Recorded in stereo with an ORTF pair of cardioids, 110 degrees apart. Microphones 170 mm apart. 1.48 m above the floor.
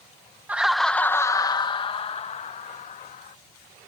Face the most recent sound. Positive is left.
turn(degrees=50)